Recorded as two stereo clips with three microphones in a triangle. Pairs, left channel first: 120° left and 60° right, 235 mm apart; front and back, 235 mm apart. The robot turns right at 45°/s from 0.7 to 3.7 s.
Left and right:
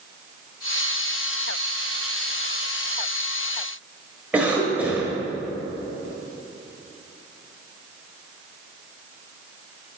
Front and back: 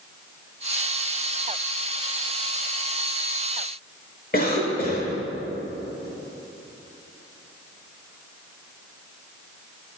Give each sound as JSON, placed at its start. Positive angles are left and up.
{"t": 4.3, "sound": "a cough", "azimuth_deg": 20, "distance_m": 1.1}